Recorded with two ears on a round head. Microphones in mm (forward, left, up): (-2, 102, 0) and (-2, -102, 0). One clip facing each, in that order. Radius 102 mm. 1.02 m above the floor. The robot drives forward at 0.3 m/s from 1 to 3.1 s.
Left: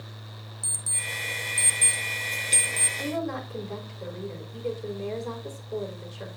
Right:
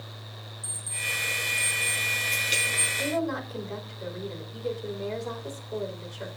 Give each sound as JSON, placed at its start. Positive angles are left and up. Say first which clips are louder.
{"t": 0.6, "sound": "an alarm clock", "louder": "left 1 dB", "side_deg": 60, "distance_m": 2.0}
{"t": 3.0, "sound": "a woman speaking", "louder": "right 2 dB", "side_deg": 5, "distance_m": 4.5}